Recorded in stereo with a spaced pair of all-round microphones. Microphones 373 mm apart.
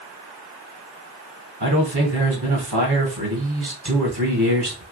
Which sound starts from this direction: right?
A man speaking, at 1.6 s.